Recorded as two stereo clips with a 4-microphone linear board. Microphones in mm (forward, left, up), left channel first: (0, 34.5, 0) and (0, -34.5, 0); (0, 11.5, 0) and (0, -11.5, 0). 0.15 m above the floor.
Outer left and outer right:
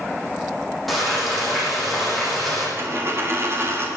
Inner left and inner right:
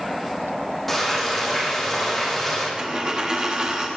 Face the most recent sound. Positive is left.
turn(degrees=-40)  # may be behind; listen again after turning